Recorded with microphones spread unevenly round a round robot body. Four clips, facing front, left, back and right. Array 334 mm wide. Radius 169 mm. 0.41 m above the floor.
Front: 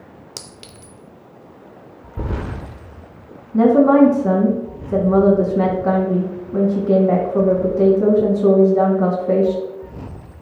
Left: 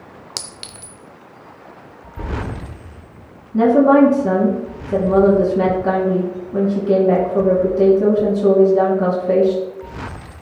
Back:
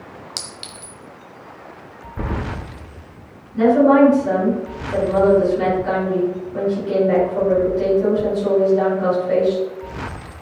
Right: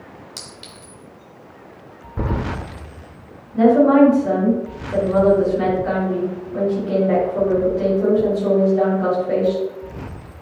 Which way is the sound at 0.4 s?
50° left.